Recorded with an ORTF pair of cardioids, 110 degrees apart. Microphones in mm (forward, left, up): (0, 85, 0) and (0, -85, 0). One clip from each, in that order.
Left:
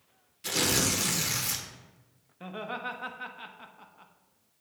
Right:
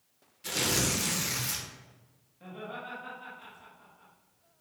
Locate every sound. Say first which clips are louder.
0.4 s tearing paper: left 2 dB; 20° left, 1.3 m
2.4 s laughter: left 5 dB; 60° left, 1.3 m